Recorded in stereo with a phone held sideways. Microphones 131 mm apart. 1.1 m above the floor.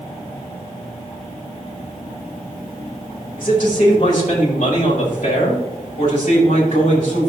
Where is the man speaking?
85° left, 4.5 m.